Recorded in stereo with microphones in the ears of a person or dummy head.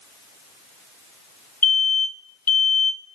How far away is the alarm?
About 0.9 m.